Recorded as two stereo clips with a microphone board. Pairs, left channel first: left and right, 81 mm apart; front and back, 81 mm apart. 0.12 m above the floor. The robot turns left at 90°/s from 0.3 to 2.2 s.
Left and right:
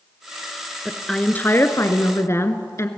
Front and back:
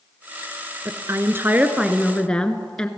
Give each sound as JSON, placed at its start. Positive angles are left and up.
{"t": 0.8, "sound": "a woman speaking", "azimuth_deg": -170, "distance_m": 1.9}